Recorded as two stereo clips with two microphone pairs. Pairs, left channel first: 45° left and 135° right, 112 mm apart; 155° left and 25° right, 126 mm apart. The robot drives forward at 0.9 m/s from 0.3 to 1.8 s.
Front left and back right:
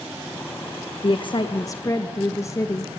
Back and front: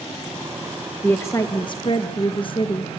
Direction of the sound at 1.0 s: 75° left.